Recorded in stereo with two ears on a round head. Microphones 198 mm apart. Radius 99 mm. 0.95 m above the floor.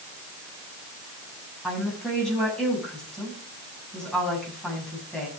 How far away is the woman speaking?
About 7 m.